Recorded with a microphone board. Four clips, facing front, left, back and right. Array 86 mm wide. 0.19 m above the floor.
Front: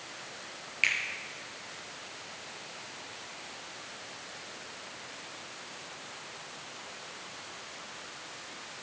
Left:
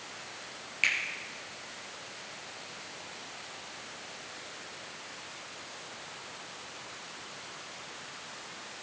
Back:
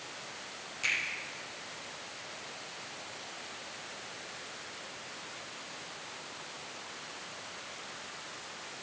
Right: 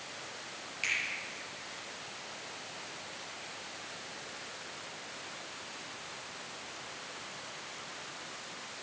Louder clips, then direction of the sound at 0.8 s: Left 5 dB, front 4 dB; 35° left.